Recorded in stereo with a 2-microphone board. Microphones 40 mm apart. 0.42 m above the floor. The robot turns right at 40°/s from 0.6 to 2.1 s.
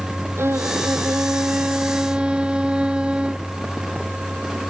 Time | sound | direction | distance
0.4 | a violin | 85° right | ?